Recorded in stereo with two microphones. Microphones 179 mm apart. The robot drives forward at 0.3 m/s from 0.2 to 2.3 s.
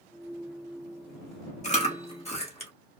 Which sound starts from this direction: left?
Chewing, at 1.6 s.